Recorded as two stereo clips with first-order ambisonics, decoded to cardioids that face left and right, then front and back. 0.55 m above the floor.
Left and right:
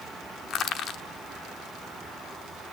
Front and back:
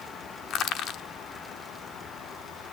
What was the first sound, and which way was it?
Crushing, 45° left.